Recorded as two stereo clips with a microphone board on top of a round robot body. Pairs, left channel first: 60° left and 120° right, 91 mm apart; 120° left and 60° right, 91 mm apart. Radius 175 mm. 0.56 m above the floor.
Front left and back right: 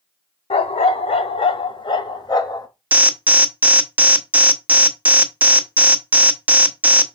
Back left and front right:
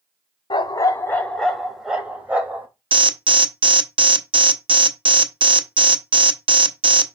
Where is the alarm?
45° right, 1.3 m.